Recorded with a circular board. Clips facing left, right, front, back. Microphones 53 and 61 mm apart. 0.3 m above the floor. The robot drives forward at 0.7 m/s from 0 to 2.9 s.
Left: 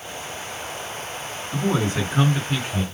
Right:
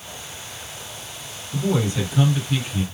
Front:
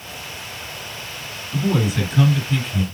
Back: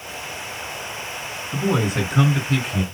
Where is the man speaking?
135° left, 3 m; by 2.8 s 145° left, 3.5 m.